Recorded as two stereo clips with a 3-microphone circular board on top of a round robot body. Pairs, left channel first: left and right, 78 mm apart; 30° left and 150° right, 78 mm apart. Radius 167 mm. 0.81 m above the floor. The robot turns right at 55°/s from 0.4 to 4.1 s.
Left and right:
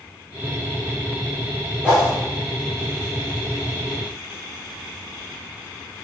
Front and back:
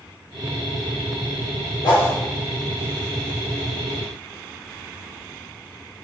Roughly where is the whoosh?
Ahead.